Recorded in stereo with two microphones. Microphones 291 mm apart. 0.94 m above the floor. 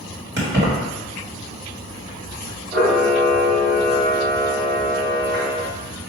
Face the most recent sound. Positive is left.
turn(degrees=-40)  # may be behind; listen again after turning